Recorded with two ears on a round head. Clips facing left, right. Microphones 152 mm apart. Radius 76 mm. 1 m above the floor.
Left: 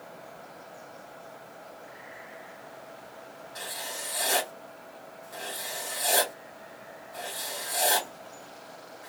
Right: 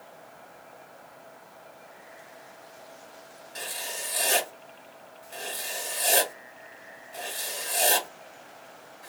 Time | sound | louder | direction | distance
3.5 | writing | right 1 dB | 30° right (ahead or behind) | 1.4 m